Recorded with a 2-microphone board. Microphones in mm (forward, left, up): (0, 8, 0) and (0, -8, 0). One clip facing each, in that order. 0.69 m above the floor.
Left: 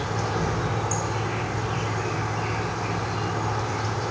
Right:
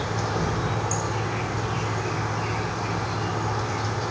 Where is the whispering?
No whispering in this recording.